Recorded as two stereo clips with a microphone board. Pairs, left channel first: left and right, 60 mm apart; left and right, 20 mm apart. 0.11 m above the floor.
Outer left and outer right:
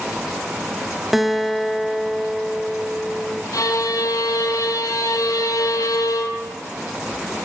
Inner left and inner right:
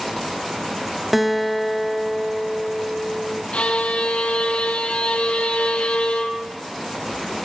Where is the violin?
65° left (ahead or behind), 1.7 m.